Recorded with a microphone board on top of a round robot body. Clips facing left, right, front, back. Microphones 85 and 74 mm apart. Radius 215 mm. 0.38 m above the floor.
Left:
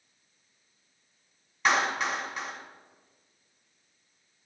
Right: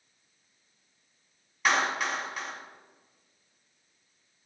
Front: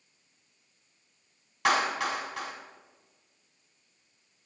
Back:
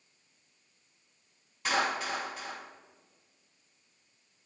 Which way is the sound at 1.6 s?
Straight ahead.